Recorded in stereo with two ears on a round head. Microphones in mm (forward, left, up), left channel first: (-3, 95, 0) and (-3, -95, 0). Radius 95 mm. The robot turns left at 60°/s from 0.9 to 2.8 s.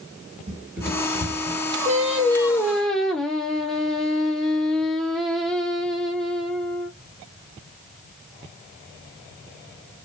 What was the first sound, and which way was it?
Running footsteps, 15° right (ahead or behind).